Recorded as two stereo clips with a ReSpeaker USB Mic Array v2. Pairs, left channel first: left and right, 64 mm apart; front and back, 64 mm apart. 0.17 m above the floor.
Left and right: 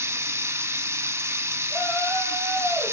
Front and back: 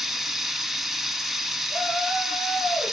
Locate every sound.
0.0 s running water: 100° right, 0.8 m
1.7 s a shout: 105° left, 2 m